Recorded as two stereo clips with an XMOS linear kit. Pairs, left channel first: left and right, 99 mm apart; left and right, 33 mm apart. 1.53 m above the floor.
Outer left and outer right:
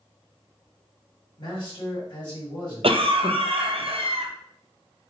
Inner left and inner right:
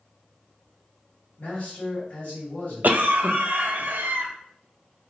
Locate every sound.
1.4 s a man speaking: 55° left (ahead or behind), 1.7 m
2.8 s a cough: 65° right (ahead or behind), 0.5 m